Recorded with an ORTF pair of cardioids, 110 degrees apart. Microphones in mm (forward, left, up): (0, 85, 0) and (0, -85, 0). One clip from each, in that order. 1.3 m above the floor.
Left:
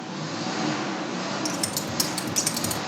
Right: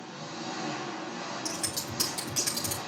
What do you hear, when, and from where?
0.0 s an engine running: 50° left, 0.8 m
1.4 s scissors: 50° left, 2.5 m